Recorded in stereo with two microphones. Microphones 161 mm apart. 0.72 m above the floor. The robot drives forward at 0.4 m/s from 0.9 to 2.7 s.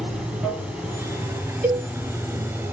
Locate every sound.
0.0 s running water: 5° right (ahead or behind), 0.9 m; by 2.7 s 10° right (ahead or behind), 0.5 m
1.6 s a cowbell: 60° right (ahead or behind), 1.8 m